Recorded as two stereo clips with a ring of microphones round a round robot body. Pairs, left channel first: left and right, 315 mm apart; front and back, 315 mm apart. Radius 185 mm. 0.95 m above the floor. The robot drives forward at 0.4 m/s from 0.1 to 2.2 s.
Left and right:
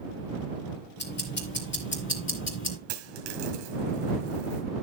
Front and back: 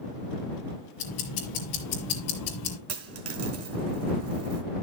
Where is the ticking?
30° left, 2.5 m; by 2.8 s 40° left, 2.5 m.